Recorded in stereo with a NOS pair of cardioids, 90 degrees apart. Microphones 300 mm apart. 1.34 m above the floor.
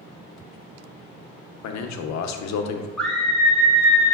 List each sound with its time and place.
1.6 s a man speaking: 70° left, 0.6 m
3.0 s a scream: straight ahead, 0.6 m